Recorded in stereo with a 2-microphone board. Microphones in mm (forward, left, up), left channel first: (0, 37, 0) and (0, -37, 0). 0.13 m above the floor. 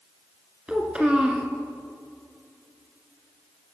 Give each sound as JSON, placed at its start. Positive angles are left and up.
{"t": 0.7, "sound": "a child speaking", "side_deg": -15, "distance_m": 1.4}